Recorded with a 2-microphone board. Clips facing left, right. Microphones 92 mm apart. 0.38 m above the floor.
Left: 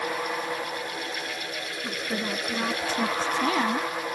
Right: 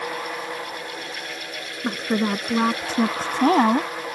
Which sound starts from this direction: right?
A woman speaking, at 1.8 s.